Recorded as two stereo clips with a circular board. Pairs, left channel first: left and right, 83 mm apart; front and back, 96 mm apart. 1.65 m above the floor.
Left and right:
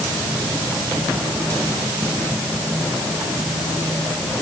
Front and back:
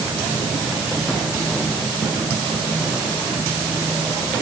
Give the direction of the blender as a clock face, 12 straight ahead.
No blender in this recording.